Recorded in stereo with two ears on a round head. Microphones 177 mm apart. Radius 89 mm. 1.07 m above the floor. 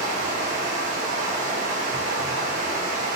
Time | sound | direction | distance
0.0 | running water | 40° right (ahead or behind) | 1.2 m